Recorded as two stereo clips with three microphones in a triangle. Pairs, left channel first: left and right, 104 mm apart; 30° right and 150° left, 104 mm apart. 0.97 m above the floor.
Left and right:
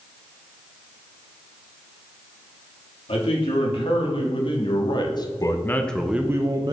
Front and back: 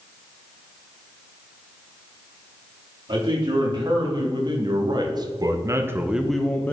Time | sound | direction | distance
3.1 | a man speaking | 110° left | 2.5 m